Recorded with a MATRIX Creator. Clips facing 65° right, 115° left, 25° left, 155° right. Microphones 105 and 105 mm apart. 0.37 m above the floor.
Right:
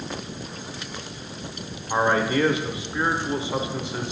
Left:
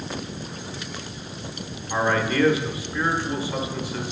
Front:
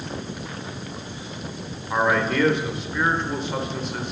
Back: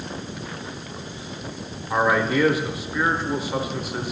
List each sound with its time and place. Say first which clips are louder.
1.9 s a man speaking: right 1 dB, back 1 dB; 85° right, 0.8 m